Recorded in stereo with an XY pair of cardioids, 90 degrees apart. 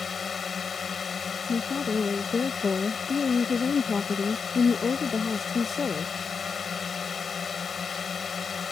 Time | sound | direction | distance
0.0 | a drone | 50° left | ?
1.5 | a woman speaking | 45° left | ?